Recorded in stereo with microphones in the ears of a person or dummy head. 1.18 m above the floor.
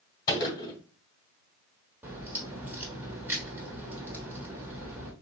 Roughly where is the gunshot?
Left.